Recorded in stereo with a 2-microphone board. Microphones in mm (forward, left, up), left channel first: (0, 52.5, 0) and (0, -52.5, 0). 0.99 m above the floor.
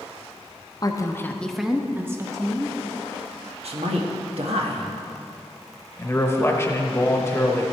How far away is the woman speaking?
About 0.8 m.